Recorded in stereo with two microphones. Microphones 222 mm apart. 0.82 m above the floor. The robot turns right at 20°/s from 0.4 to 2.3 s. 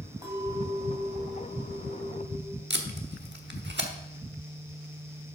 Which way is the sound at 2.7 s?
50° right (ahead or behind).